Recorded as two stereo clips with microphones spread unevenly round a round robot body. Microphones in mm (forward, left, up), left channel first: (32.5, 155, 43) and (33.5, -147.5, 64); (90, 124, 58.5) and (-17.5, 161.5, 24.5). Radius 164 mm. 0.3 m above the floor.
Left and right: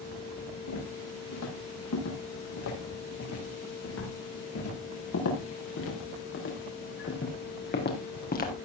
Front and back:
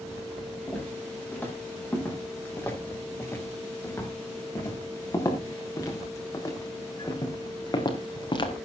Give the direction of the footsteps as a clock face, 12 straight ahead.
10 o'clock.